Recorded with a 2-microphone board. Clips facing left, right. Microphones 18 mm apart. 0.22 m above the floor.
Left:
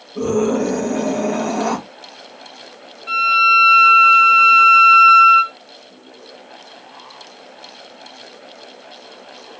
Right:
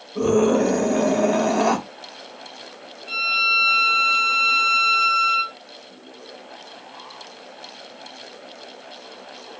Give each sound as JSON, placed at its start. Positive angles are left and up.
{"t": 0.1, "sound": "a scream", "side_deg": -15, "distance_m": 1.9}
{"t": 3.1, "sound": "a violin", "side_deg": 60, "distance_m": 0.8}